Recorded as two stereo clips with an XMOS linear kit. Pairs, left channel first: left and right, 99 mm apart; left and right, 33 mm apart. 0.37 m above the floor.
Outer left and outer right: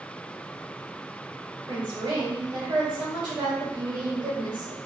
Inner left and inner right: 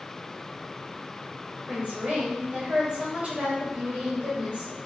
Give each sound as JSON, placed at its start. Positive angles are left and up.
{"t": 1.7, "sound": "a woman speaking", "side_deg": -40, "distance_m": 1.4}